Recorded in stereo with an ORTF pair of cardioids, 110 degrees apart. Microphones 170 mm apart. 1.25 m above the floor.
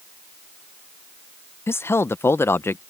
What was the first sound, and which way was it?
A man speaking, 15° left.